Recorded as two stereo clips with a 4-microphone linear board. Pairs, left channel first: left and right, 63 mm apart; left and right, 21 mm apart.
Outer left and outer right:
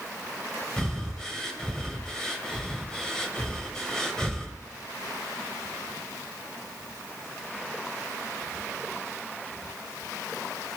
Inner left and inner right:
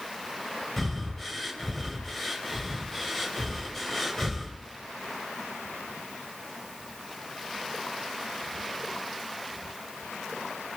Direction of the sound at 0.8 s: 10° left (ahead or behind).